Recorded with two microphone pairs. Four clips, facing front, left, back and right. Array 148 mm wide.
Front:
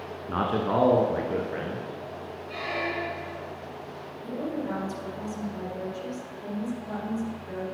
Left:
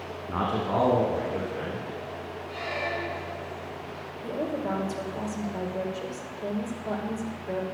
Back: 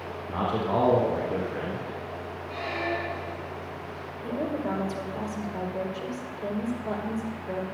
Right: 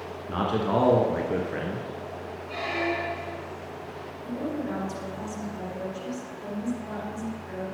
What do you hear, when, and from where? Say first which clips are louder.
0.3 s a man speaking: right 2 dB, front 1 dB; 5° left, 1.6 m; by 1.9 s 80° right, 2.5 m
2.5 s a squeak: right 4 dB, back 1 dB; 55° right, 5.5 m
4.2 s a woman speaking: left 1 dB, back 2 dB; 130° left, 4 m